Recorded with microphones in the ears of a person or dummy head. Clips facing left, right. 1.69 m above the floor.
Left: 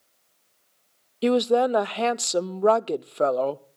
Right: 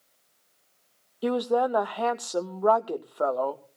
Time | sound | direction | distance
1.2 | a woman speaking | 30° left (ahead or behind) | 0.5 m